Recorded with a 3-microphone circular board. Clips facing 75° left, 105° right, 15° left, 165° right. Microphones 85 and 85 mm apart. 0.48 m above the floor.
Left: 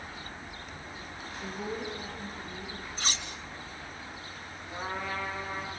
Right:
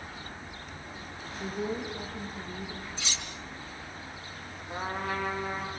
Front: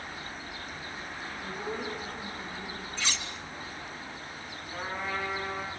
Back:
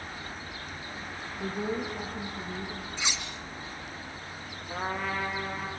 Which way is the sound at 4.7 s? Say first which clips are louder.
Right 2 dB, back 3 dB; 145° right.